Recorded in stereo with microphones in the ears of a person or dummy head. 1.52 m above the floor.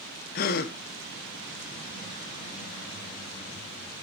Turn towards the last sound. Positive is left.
turn(degrees=50)  # may be behind; listen again after turning